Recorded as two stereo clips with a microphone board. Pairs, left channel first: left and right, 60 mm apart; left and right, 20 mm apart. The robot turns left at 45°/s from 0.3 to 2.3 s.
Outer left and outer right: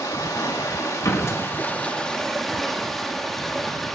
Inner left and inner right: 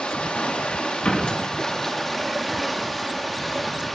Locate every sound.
0.0 s running water: 95° left, 1.4 m; by 4.0 s 5° left, 1.4 m
1.1 s a door slam: 60° left (ahead or behind), 1.3 m; by 1.4 s 45° left (ahead or behind), 1.3 m